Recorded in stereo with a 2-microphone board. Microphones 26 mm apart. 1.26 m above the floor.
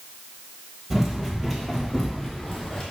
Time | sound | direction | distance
0.9 | running footsteps | 5° right (ahead or behind) | 1.3 m